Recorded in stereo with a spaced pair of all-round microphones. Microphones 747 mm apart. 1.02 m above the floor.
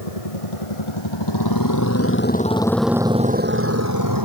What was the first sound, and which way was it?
A motorcycle, 50° left (ahead or behind).